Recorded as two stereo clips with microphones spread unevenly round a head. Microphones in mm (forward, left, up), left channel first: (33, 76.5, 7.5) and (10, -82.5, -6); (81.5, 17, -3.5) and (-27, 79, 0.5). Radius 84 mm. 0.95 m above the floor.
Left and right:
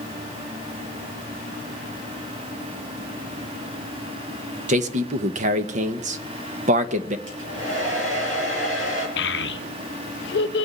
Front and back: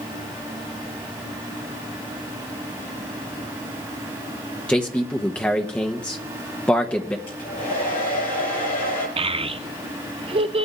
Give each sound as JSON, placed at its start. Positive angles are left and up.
{"t": 4.7, "sound": "a man speaking", "azimuth_deg": -110, "distance_m": 1.0}
{"t": 7.3, "sound": "a hair dryer", "azimuth_deg": -90, "distance_m": 6.0}
{"t": 9.2, "sound": "a child speaking", "azimuth_deg": 105, "distance_m": 0.7}